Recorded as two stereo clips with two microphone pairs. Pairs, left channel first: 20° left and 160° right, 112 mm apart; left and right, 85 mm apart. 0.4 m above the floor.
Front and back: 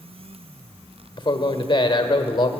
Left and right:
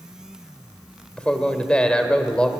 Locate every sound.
1.2 s a man speaking: 15° left, 1.3 m